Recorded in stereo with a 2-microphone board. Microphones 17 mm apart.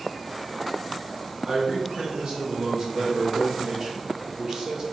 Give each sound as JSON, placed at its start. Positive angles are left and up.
{"t": 1.4, "sound": "a man speaking", "side_deg": -40, "distance_m": 1.7}